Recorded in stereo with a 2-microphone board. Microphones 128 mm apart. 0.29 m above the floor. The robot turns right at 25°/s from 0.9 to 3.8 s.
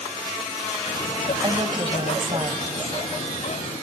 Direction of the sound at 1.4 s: 115° right.